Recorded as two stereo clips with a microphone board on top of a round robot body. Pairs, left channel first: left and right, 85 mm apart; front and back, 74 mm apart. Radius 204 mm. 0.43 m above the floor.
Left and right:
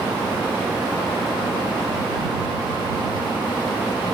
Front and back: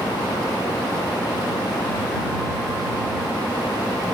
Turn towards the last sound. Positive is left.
No sound to turn to.